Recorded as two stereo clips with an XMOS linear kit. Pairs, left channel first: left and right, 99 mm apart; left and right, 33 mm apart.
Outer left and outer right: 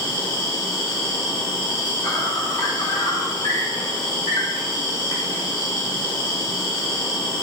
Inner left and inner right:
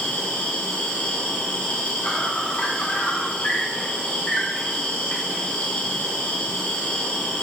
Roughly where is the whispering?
I don't hear whispering.